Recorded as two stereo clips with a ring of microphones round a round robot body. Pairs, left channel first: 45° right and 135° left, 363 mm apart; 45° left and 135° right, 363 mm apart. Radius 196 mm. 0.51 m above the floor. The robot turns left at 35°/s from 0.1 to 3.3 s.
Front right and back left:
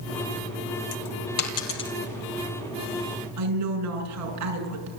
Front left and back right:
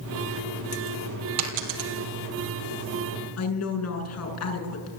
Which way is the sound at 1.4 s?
90° right.